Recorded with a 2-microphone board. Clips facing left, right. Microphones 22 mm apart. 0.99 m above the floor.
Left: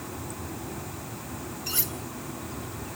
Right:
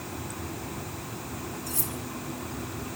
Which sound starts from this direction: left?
Cutlery clinking, at 1.7 s.